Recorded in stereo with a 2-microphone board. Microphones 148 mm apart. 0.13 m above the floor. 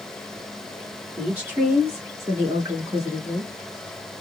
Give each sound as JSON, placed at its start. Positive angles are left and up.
{"t": 1.2, "sound": "a woman speaking", "side_deg": -10, "distance_m": 1.9}